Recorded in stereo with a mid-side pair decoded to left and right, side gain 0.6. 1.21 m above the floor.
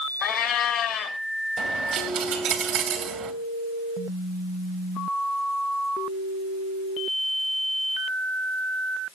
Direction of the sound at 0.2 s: 55° left.